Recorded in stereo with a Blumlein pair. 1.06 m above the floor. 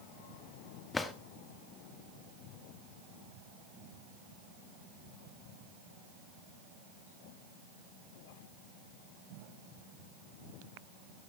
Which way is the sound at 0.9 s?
15° left.